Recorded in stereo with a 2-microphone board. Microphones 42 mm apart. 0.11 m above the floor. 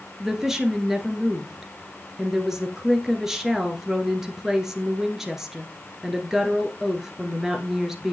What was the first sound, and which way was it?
A woman speaking, 10° right (ahead or behind).